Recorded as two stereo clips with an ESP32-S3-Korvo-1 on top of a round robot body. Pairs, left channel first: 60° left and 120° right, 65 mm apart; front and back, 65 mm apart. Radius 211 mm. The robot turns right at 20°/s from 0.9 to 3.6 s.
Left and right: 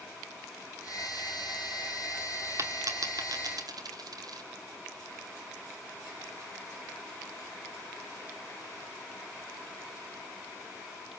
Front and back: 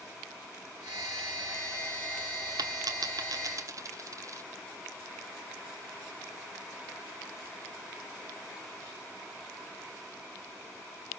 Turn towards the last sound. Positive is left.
turn(degrees=-140)